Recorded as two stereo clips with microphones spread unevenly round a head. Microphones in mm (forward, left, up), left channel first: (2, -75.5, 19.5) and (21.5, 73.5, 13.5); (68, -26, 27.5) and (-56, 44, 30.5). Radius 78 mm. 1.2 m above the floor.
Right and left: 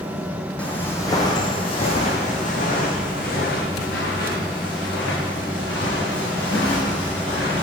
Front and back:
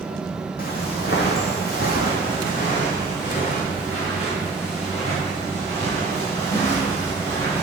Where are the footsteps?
20° right, 2 m; by 7.6 s 90° right, 7 m.